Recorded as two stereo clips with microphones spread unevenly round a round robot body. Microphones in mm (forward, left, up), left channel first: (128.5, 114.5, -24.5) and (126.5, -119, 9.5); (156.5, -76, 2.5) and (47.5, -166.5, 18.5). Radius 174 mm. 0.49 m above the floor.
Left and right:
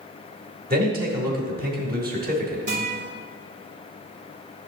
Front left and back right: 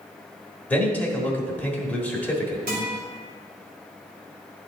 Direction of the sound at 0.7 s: 40° right.